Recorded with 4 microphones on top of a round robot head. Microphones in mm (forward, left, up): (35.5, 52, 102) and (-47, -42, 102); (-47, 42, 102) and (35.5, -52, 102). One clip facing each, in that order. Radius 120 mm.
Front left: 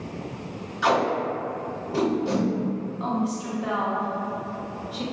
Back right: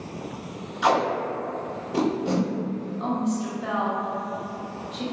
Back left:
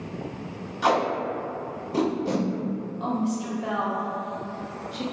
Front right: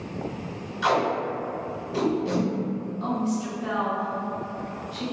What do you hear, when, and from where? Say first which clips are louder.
0.8 s tape being pulled: even, even; 160° left, 1.1 m
3.0 s a woman speaking: back right 2 dB, even; 135° left, 0.9 m